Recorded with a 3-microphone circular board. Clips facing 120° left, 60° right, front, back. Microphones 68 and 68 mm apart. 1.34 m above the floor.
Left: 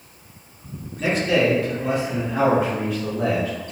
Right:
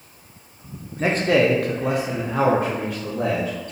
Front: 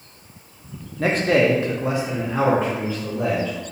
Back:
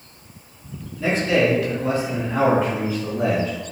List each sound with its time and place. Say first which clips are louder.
1.0 s a man speaking: right 1 dB, front 1 dB; 10° right, 0.8 m; by 3.5 s 105° right, 1.7 m